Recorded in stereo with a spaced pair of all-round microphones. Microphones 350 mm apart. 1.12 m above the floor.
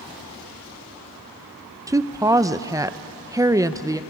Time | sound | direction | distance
1.9 | a woman speaking | 10° right (ahead or behind) | 0.5 m